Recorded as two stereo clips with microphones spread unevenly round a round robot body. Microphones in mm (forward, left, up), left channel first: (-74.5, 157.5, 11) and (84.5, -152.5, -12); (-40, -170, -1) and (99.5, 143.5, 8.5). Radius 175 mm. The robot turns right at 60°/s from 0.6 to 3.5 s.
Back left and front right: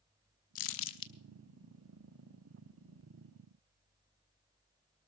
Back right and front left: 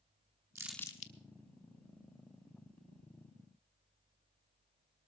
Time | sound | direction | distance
0.6 | crumpling | 150° left | 1.0 m